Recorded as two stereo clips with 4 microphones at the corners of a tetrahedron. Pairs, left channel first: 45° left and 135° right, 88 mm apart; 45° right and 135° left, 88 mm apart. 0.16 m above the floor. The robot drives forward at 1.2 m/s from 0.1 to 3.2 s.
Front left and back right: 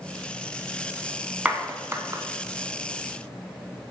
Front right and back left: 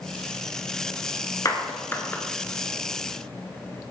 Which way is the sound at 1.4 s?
60° right.